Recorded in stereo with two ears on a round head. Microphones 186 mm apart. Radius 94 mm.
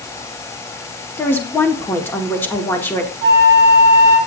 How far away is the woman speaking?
About 2 m.